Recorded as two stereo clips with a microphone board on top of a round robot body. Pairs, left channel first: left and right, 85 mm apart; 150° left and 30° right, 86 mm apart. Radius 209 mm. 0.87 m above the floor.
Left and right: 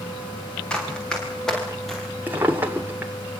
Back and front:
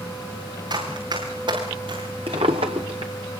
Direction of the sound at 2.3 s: 25° right.